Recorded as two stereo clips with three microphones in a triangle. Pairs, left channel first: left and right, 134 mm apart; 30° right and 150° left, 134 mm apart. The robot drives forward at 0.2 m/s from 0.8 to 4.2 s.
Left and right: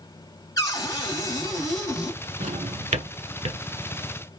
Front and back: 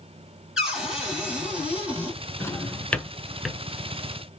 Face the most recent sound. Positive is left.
turn(degrees=-130)